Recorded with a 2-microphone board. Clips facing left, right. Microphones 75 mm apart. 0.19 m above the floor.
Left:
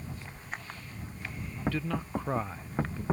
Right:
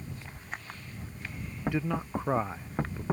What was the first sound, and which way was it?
A man speaking, 20° right (ahead or behind).